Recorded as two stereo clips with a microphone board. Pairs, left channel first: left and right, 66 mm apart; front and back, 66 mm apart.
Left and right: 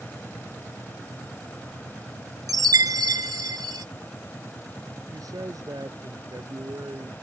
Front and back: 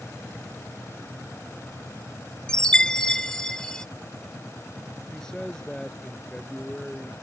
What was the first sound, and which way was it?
A chime, 80° right.